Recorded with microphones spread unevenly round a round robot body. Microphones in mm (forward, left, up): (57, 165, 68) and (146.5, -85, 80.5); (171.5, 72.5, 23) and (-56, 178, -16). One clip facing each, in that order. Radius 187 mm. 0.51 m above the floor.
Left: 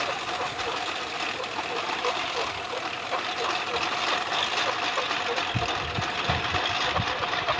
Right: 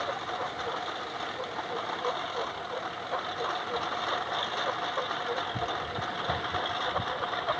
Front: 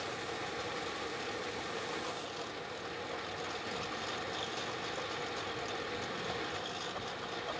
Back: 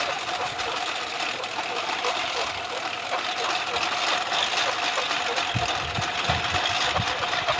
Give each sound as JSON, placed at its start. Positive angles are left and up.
{"t": 0.0, "sound": "a lawn mower", "azimuth_deg": 170}